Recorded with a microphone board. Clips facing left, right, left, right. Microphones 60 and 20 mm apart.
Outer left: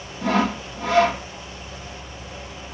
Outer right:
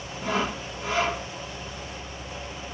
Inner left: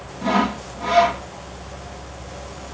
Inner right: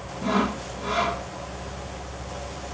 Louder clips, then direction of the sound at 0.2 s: Outer left 6 dB, inner left 4 dB; 60° left (ahead or behind).